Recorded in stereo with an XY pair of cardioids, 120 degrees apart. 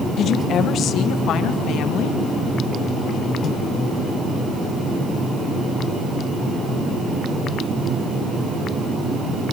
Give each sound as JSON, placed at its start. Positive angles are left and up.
{"t": 0.2, "sound": "a woman speaking", "azimuth_deg": 60, "distance_m": 1.3}